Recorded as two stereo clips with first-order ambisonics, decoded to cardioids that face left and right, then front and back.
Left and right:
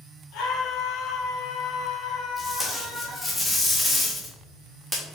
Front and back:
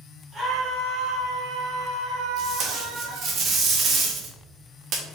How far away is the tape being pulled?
About 1.0 m.